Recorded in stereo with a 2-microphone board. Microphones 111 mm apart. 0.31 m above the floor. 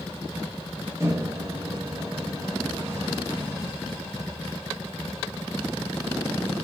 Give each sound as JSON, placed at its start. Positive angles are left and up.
{"t": 1.0, "sound": "a microwave", "side_deg": -25, "distance_m": 0.8}